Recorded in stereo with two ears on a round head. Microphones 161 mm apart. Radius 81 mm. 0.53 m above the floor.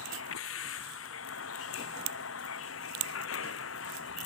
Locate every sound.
0.0 s a vehicle: 85° left; by 4.3 s 90° left